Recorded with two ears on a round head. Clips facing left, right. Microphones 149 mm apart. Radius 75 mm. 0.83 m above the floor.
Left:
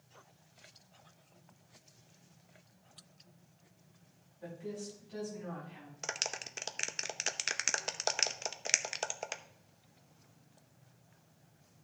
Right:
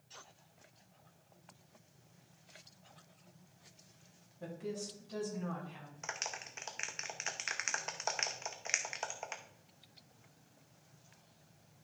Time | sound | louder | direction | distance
4.4 | a woman speaking | right 1 dB | 50° right (ahead or behind) | 5.5 m
6.0 | a clap | left 3 dB | 40° left (ahead or behind) | 0.6 m